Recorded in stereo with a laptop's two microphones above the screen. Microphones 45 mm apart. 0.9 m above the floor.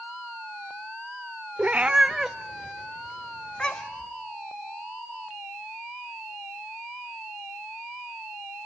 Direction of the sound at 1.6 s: 35° right (ahead or behind).